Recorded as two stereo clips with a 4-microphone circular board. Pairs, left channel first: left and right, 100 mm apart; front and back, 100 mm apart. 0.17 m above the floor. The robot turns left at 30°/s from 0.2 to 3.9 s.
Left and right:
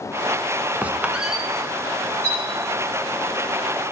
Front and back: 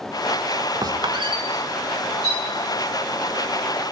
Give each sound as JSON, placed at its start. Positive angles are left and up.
{"t": 0.8, "sound": "a squeak", "azimuth_deg": -160, "distance_m": 0.8}
{"t": 2.2, "sound": "a clink", "azimuth_deg": 150, "distance_m": 8.5}